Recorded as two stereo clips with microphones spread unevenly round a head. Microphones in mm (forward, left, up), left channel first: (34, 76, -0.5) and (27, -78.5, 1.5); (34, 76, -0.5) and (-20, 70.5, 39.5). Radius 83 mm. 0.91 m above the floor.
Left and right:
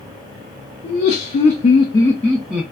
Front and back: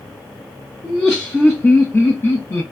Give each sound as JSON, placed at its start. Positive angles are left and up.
{"t": 0.8, "sound": "laughter", "azimuth_deg": 75, "distance_m": 0.7}